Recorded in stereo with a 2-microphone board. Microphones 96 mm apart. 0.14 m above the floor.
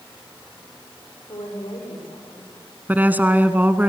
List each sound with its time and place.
1.3 s a woman speaking: 65° left (ahead or behind), 8.5 m
2.9 s a woman speaking: 20° right (ahead or behind), 1.1 m